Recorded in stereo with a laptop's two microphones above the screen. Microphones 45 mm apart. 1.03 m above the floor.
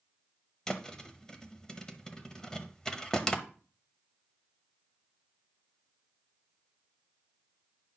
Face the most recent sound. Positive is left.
turn(degrees=15)  # may be behind; listen again after turning